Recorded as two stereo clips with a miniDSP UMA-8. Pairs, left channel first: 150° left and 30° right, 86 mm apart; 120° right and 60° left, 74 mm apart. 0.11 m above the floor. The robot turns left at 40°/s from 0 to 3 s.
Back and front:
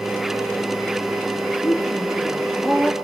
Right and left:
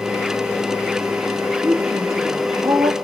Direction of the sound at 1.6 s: 120° left.